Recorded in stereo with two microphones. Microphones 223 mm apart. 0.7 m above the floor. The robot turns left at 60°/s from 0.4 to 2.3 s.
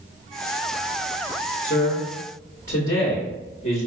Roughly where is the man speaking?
Left.